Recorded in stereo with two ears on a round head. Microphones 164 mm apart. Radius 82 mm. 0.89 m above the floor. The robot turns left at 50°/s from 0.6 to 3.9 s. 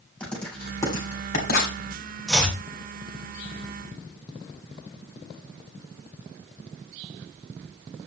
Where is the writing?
5° left (ahead or behind), 3.5 m; by 1.8 s 60° left (ahead or behind), 3.5 m.